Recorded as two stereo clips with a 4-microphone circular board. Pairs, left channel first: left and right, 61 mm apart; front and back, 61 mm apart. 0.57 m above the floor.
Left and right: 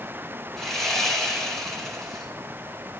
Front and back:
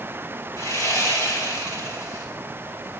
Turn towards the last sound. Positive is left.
turn(degrees=10)